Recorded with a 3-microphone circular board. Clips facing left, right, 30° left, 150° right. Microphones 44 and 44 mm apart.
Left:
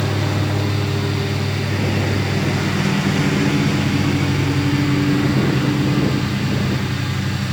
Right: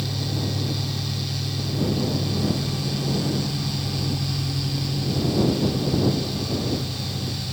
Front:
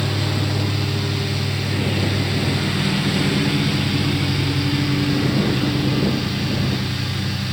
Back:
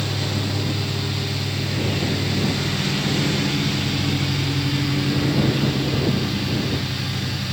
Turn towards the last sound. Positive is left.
turn(degrees=115)